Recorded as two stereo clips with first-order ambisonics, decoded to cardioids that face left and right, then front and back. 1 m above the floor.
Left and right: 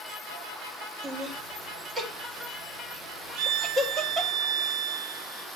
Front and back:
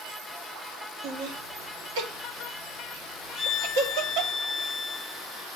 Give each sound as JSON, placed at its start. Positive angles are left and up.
{"t": 1.0, "sound": "laughter", "azimuth_deg": -170, "distance_m": 2.5}
{"t": 3.4, "sound": "a violin", "azimuth_deg": -60, "distance_m": 0.7}